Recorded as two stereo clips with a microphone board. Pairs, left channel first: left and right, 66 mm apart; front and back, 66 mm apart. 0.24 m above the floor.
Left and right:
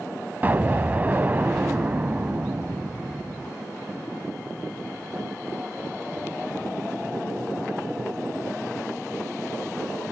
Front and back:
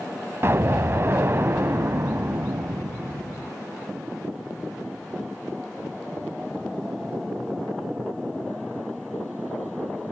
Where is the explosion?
145° right, 0.6 m.